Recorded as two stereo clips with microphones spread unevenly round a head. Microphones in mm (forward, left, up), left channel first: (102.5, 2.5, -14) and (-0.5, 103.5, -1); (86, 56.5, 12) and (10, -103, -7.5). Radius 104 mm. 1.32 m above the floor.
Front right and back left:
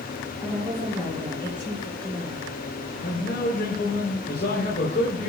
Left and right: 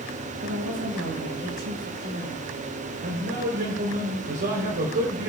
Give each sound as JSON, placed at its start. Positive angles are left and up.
{"t": 0.4, "sound": "a woman speaking", "azimuth_deg": -125, "distance_m": 7.5}
{"t": 3.0, "sound": "a man speaking", "azimuth_deg": -85, "distance_m": 3.5}